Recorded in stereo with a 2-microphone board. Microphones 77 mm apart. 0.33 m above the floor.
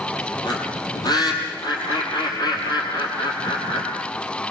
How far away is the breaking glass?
No breaking glass in this recording.